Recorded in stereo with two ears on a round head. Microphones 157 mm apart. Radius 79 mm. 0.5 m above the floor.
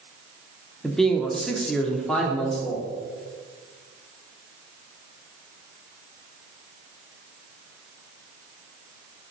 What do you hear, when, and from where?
0.8 s a man speaking: centre (ahead or behind), 0.9 m; by 2.9 s 5° left (ahead or behind), 1.2 m